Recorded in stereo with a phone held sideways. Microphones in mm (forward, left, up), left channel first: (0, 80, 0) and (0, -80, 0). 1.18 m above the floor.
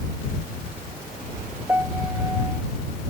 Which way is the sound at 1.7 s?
10° right (ahead or behind).